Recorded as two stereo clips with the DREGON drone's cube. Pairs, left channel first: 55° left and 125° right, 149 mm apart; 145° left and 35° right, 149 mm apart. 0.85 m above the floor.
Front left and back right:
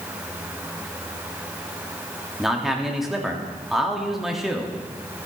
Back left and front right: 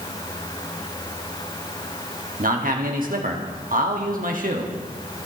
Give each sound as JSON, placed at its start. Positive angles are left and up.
{"t": 2.4, "sound": "a man speaking", "azimuth_deg": -35, "distance_m": 1.5}